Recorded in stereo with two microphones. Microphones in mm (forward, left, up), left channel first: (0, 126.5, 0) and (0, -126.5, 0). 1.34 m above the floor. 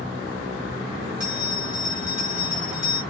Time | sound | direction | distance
1.2 | a bell | 80° left | 1.5 m